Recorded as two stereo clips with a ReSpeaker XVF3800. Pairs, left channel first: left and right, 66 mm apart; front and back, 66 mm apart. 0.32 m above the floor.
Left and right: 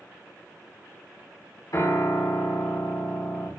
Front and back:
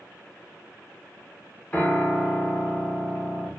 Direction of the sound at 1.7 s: 70° left.